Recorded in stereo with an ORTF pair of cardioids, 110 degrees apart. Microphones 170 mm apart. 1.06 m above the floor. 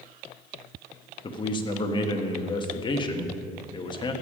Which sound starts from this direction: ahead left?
A man speaking, at 1.2 s.